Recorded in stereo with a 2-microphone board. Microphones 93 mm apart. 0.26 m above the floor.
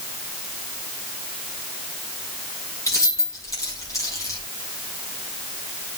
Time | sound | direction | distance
2.9 | keys jangling | 35° left (ahead or behind) | 5 m